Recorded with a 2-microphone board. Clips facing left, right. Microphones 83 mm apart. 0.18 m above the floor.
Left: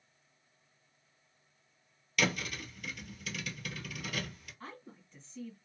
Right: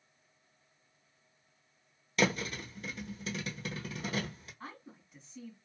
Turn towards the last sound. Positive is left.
turn(degrees=-10)  # may be behind; listen again after turning